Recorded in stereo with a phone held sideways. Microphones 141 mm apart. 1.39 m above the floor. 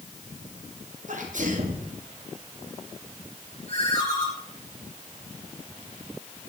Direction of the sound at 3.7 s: 50° left (ahead or behind).